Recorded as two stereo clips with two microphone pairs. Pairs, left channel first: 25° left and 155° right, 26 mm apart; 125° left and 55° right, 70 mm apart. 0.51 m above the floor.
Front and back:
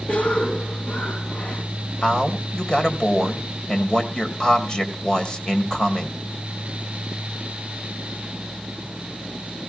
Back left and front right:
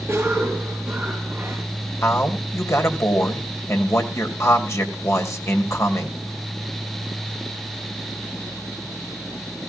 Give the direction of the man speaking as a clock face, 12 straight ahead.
9 o'clock.